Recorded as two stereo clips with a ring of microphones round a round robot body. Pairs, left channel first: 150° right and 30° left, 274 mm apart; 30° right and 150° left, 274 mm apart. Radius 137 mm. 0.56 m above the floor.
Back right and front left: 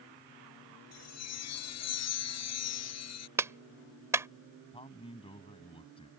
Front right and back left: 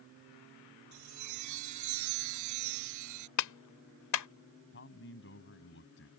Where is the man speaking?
80° right.